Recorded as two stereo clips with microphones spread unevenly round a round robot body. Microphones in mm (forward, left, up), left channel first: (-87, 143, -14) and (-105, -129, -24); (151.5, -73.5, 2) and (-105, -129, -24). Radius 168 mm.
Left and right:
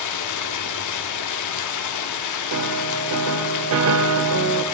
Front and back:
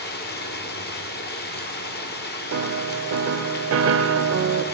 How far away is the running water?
About 1.1 m.